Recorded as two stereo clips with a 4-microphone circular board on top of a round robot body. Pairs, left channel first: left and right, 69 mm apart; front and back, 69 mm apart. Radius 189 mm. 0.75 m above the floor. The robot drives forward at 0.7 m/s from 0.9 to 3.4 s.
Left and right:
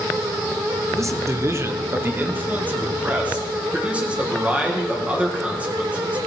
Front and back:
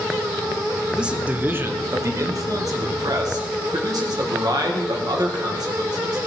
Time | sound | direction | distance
0.9 | a man speaking | 105° right | 1.2 m